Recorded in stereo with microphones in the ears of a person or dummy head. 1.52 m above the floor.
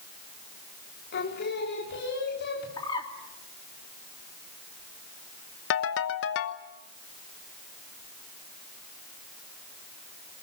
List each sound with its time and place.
1.1 s singing: 55° left (ahead or behind), 4 m
2.8 s a bird: 20° left (ahead or behind), 3 m
5.7 s a ringtone: 70° left (ahead or behind), 1.2 m